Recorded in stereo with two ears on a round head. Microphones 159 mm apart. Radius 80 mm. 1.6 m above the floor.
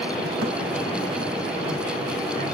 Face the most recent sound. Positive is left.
turn(degrees=-65)  # may be behind; listen again after turning